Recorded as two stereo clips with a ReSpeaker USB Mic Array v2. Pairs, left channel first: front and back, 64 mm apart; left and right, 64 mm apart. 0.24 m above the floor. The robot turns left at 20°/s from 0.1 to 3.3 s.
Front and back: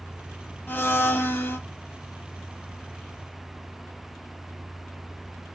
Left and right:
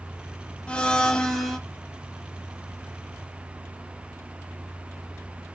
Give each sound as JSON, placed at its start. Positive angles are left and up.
{"t": 0.7, "sound": "a blender", "azimuth_deg": 25, "distance_m": 0.7}